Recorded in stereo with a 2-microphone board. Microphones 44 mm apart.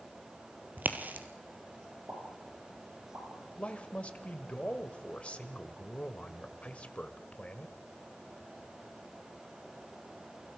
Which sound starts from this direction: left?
A man speaking, at 3.6 s.